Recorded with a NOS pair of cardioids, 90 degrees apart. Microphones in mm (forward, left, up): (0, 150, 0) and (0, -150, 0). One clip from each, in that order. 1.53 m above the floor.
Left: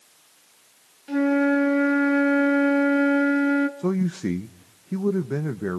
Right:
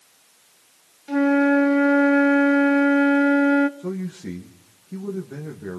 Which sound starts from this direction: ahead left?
A man speaking, at 3.8 s.